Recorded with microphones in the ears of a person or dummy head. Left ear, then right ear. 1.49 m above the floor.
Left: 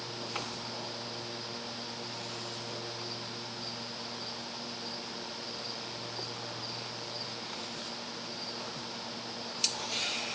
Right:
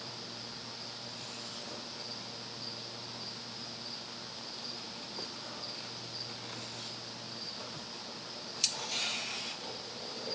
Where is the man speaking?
No man speaking in this recording.